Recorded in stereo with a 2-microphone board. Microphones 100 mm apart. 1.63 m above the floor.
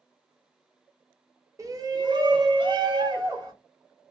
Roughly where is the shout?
Right.